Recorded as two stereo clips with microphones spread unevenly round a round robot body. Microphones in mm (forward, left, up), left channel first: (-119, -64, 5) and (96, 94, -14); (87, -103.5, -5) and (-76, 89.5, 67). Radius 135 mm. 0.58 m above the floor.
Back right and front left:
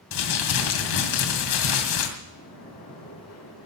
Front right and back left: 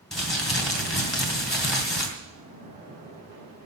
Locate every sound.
0.1 s crumpling: 135° right, 2.5 m
2.2 s a splash: 175° right, 5.5 m